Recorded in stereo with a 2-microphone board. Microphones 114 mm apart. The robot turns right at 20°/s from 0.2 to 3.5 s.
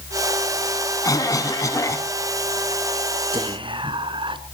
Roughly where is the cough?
Left.